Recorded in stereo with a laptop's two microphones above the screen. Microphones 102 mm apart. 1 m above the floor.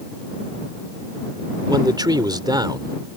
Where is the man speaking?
40° right (ahead or behind).